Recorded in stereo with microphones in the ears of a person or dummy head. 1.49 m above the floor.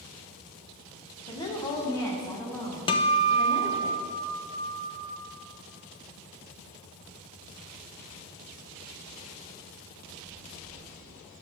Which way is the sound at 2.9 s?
25° left (ahead or behind).